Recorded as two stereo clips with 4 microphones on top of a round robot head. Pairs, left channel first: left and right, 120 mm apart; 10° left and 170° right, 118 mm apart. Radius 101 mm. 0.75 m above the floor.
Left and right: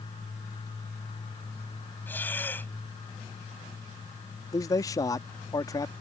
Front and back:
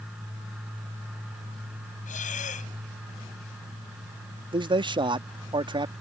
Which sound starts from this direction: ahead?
Breathing, at 2.1 s.